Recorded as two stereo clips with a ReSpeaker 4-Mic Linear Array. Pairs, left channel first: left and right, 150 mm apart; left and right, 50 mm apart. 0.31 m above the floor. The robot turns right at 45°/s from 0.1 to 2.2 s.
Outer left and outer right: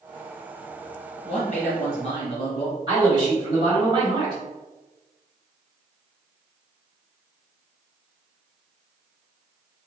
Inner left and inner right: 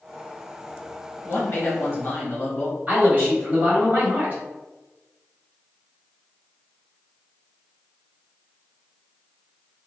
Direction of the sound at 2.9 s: 30° right (ahead or behind).